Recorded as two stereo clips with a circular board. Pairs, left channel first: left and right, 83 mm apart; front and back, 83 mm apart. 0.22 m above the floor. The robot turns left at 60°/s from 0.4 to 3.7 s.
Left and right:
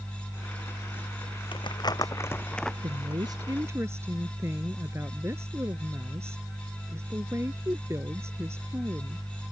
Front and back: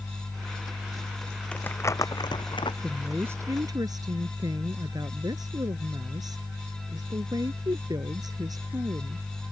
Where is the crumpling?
75° left; by 2.7 s 5° left.